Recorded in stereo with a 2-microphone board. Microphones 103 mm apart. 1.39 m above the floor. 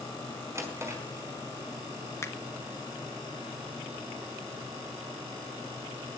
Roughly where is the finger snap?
Left.